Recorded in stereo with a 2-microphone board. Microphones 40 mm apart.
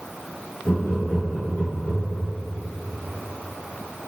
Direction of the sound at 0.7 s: 65° left (ahead or behind).